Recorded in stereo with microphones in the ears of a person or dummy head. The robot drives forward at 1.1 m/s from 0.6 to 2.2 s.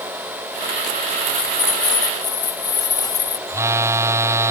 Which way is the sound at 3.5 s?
15° right (ahead or behind).